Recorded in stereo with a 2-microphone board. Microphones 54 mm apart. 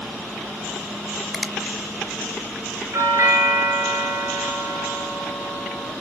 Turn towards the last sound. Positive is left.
turn(degrees=-65)  # may be behind; listen again after turning